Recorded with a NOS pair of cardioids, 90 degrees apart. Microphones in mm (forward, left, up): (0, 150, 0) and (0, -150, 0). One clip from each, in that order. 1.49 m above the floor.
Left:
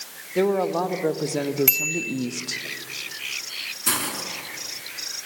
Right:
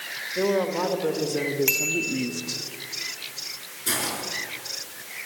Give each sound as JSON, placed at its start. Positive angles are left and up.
{"t": 0.3, "sound": "a woman speaking", "azimuth_deg": 50, "distance_m": 3.0}
{"t": 1.7, "sound": "a bicycle bell", "azimuth_deg": 50, "distance_m": 3.5}
{"t": 3.9, "sound": "a hiss", "azimuth_deg": 45, "distance_m": 3.5}